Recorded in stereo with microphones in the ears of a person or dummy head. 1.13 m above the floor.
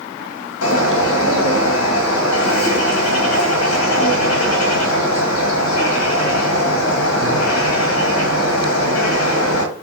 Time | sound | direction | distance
0.6 | a bird | 80° left | 1.3 m